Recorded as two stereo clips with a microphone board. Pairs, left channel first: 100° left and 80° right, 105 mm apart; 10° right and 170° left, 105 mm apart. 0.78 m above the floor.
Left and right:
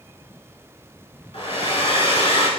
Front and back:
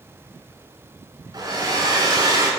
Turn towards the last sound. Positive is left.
turn(degrees=120)